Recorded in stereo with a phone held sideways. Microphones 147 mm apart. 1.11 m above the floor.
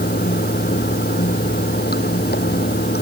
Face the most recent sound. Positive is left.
turn(degrees=80)